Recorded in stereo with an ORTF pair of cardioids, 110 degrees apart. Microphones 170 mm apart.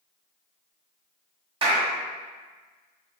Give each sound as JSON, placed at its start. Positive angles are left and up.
{"t": 1.6, "sound": "a clap", "azimuth_deg": -30, "distance_m": 1.5}